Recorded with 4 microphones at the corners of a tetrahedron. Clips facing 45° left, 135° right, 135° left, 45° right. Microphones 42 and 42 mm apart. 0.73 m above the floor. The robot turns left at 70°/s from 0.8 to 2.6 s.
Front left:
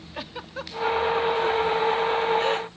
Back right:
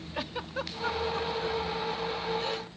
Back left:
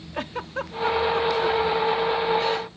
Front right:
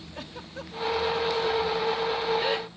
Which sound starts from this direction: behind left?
A giggle, at 0.1 s.